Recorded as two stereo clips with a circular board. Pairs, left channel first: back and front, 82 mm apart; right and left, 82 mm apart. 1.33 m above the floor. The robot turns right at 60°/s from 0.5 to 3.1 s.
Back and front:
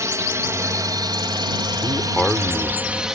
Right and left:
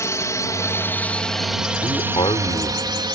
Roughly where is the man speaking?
Behind right.